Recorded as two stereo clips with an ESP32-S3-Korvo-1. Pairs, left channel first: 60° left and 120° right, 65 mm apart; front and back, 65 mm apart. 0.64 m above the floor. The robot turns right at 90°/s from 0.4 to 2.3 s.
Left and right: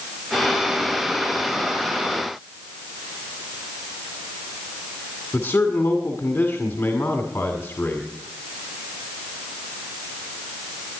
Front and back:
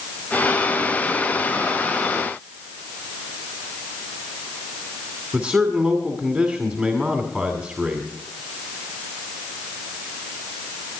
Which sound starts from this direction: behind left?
A man speaking, at 5.3 s.